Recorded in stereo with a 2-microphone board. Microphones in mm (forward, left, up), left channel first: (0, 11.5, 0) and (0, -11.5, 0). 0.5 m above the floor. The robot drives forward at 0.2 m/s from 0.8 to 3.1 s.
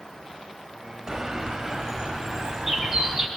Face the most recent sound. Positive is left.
turn(degrees=-15)  # may be behind; listen again after turning